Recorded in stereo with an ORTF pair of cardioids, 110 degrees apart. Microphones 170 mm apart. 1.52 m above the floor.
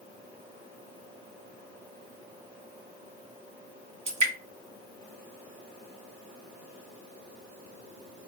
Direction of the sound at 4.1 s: 40° right.